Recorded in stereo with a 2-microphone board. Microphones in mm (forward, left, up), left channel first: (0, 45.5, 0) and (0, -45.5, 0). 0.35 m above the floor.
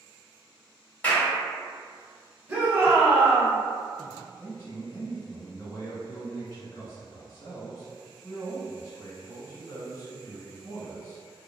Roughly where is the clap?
Centre.